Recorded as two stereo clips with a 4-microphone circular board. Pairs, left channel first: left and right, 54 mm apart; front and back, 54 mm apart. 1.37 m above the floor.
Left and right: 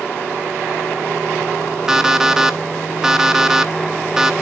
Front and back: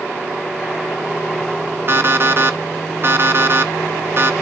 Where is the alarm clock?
165° right, 0.9 m.